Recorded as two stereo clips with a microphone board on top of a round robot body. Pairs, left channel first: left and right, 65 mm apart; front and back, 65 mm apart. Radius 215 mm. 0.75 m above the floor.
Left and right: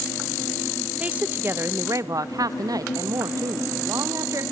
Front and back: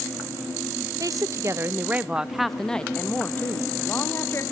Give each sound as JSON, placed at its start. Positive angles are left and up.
{"t": 1.0, "sound": "a woman speaking", "azimuth_deg": -160, "distance_m": 1.3}